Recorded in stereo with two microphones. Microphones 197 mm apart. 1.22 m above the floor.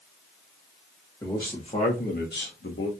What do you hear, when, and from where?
1.2 s a man speaking: 15° left (ahead or behind), 1.2 m; by 2.9 s 80° left, 1.1 m